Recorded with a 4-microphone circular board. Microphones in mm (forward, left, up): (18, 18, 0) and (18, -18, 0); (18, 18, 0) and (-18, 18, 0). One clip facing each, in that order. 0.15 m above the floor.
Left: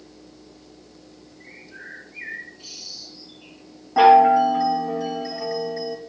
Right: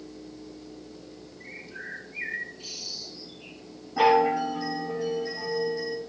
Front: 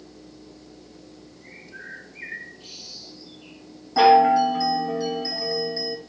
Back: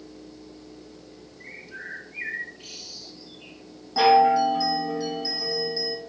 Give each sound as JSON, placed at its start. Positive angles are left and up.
{"t": 1.4, "sound": "a bird", "azimuth_deg": 180, "distance_m": 4.5}
{"t": 4.0, "sound": "a chime", "azimuth_deg": 85, "distance_m": 4.5}